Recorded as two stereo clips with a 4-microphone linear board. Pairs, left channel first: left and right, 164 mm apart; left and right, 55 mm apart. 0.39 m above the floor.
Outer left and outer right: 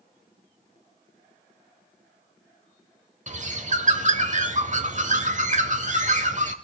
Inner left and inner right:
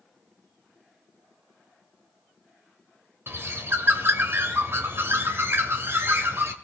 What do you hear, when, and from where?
3.3 s a bird: 50° right (ahead or behind), 1.1 m